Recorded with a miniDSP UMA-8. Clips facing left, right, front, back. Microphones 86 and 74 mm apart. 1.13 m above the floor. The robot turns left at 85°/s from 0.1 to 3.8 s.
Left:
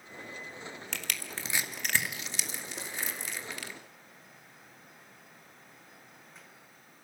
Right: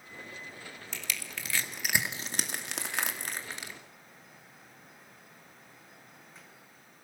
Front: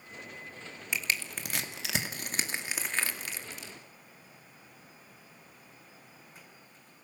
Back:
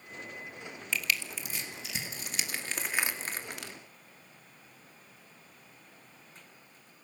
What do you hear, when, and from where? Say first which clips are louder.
0.9 s crushing: right 1 dB, back 1 dB; 75° left, 2.5 m; by 3.7 s 165° right, 2.5 m